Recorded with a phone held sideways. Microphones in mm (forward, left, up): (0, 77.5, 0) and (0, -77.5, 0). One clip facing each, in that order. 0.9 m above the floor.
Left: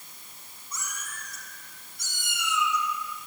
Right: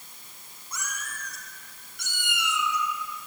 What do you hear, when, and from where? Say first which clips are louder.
0.7 s a cat meowing: right 2 dB; 70° right (ahead or behind), 5 m; by 3.3 s 65° right (ahead or behind), 4 m